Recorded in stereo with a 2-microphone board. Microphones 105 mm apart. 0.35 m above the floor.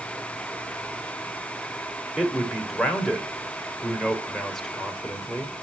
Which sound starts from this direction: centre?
A man speaking, at 2.2 s.